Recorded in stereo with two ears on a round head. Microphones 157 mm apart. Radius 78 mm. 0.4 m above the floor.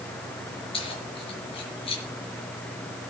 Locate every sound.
0.7 s keys jangling: 30° left (ahead or behind), 5 m